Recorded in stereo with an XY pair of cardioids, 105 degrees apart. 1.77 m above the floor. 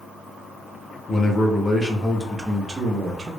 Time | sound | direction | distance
1.1 | a man speaking | 45° left | 0.9 m